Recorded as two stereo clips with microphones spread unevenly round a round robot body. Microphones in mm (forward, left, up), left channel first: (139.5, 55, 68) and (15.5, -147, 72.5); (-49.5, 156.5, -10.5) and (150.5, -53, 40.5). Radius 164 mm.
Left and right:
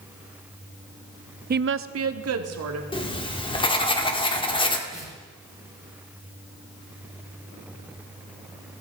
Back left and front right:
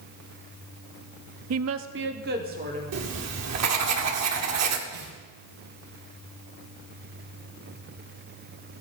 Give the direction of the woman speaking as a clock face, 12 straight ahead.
3 o'clock.